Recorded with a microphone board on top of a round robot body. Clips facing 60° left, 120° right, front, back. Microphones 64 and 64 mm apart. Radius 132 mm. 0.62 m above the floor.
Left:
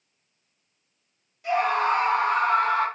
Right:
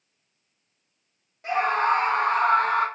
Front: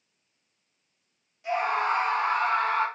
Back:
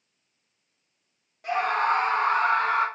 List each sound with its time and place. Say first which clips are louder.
1.4 s a scream: even, back 2 dB; 160° right, 1.9 m; by 2.9 s 115° right, 1.9 m